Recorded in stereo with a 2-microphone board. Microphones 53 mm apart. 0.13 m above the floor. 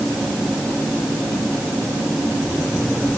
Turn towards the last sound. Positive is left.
No sound to turn to.